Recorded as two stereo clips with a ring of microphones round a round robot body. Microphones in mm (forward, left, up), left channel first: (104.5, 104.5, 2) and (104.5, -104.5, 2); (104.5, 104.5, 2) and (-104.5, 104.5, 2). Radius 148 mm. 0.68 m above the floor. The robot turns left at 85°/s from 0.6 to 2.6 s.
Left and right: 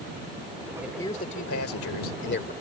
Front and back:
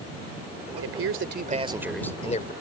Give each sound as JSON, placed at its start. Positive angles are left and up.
{"t": 0.8, "sound": "a man speaking", "azimuth_deg": -170}